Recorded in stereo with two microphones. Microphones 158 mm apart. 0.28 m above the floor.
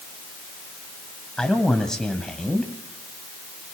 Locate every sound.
1.4 s a man speaking: 5° left (ahead or behind), 2 m